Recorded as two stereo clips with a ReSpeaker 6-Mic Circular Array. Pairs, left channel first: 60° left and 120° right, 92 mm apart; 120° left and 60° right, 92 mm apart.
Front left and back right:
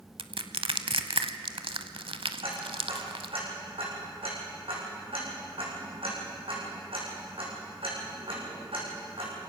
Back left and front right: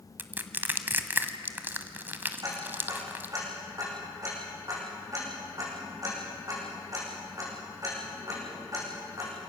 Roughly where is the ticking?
Right.